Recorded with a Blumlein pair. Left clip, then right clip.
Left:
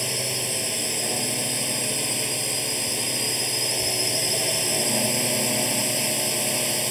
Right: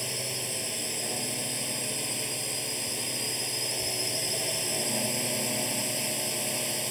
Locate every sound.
0.0 s a drone: 15° left